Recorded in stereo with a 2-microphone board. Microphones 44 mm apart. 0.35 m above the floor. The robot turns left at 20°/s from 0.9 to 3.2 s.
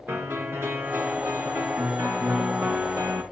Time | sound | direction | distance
0.1 | a piano | 55° right | 4 m